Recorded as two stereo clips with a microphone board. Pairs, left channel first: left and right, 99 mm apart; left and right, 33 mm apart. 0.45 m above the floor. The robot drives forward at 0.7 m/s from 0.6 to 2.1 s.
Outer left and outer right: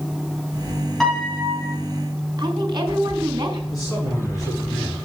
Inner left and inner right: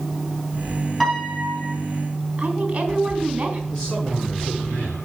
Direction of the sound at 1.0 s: 5° left (ahead or behind).